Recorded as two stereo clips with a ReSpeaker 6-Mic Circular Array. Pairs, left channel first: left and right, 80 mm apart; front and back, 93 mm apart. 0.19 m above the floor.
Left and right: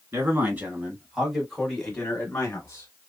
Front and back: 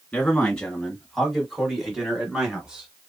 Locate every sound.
0.1 s a man speaking: 70° right, 1.7 m; by 2.9 s 110° left, 1.8 m